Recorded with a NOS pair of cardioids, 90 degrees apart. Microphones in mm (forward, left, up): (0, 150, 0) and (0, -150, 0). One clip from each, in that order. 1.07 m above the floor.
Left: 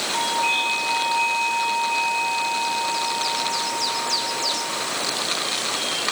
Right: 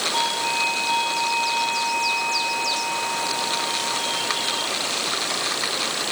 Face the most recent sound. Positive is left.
turn(degrees=60)